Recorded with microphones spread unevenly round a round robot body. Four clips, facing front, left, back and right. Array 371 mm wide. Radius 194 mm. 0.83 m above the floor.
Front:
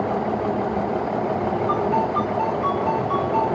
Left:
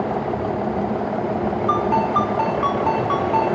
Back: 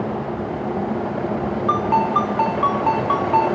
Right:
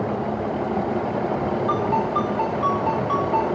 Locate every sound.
1.7 s a ringtone: 175° right, 5.5 m